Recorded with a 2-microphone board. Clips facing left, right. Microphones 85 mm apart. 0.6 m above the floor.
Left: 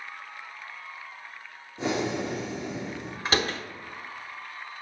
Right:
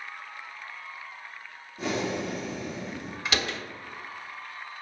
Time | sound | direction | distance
1.8 | breathing | 25° left (ahead or behind) | 1.4 m
3.2 | a door slam | 40° left (ahead or behind) | 0.8 m